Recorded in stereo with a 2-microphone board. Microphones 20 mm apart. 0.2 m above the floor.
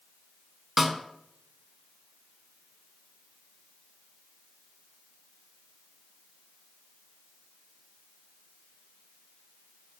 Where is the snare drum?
10° right (ahead or behind), 0.6 m.